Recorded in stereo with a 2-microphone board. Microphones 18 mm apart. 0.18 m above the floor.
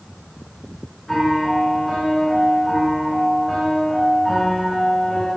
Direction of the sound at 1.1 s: 25° left (ahead or behind).